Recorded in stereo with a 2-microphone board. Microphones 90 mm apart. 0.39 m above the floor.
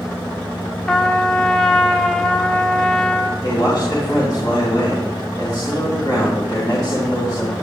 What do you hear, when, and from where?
0.9 s a trumpet: 10° left (ahead or behind), 0.7 m
3.4 s a man speaking: 50° left (ahead or behind), 3 m